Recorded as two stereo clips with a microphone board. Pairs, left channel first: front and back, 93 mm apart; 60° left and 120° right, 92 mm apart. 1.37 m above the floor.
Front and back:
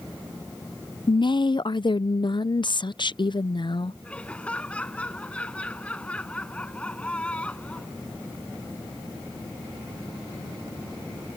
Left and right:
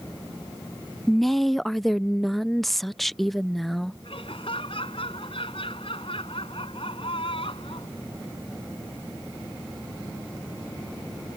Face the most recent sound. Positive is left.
turn(degrees=80)